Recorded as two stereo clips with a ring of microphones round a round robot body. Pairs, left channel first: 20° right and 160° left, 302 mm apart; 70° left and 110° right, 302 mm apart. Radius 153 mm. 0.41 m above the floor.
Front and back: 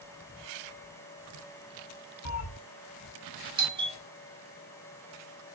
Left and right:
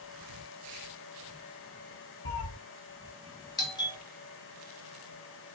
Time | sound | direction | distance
2.2 | a cat meowing | 15° left | 0.8 m
3.6 | a doorbell | 115° left | 1.2 m